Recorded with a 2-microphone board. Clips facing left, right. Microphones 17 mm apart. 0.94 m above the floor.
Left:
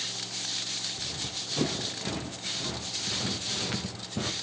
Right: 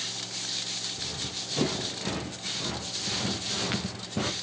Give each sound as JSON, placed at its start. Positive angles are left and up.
{"t": 0.9, "sound": "running footsteps", "side_deg": -15, "distance_m": 4.5}